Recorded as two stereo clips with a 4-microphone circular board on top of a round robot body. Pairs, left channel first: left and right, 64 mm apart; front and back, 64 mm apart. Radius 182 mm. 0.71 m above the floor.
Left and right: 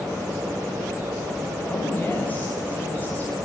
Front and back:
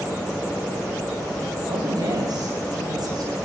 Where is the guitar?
I don't hear a guitar.